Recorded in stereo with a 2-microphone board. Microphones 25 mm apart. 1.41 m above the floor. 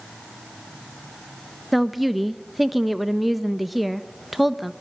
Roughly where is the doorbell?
I don't hear a doorbell.